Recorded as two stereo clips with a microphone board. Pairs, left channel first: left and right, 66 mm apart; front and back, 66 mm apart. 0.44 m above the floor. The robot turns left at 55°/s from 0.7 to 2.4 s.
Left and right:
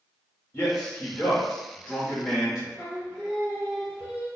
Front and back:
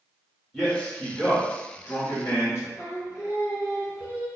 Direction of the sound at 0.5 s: 85° left.